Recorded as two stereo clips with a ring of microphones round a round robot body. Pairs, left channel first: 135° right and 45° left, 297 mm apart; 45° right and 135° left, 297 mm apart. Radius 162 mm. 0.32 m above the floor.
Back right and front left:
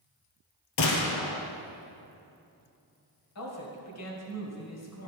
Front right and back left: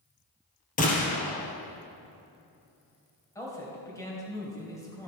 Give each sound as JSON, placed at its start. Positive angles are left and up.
{"t": 0.8, "sound": "a gunshot", "azimuth_deg": -110, "distance_m": 1.5}
{"t": 3.4, "sound": "a man speaking", "azimuth_deg": -125, "distance_m": 2.5}